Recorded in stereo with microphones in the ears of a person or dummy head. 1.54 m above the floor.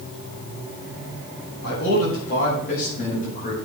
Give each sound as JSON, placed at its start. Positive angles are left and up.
{"t": 1.6, "sound": "a man speaking", "side_deg": 60, "distance_m": 7.5}